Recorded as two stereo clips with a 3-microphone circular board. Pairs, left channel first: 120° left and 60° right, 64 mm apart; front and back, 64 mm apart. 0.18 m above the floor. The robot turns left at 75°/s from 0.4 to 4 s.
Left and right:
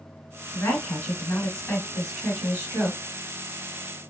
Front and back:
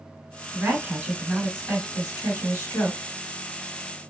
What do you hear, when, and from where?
0.5 s a woman speaking: 145° left, 1.5 m; by 3.0 s 45° right, 1.5 m